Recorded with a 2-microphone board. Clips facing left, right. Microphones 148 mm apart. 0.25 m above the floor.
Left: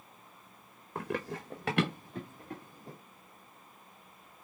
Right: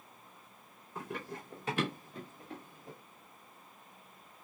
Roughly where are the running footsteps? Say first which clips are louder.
Left 6 dB; left.